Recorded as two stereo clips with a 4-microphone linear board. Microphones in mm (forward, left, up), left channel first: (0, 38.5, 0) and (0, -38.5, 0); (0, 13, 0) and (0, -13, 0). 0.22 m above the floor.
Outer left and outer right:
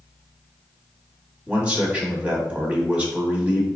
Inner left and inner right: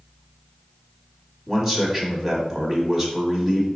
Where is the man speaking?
15° right (ahead or behind), 1.4 m.